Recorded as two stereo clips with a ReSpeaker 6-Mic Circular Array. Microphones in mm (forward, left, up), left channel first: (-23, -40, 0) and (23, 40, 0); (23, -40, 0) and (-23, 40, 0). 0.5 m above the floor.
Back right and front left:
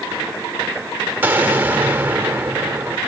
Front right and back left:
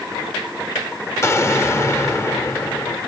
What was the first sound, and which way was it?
An explosion, 5° right.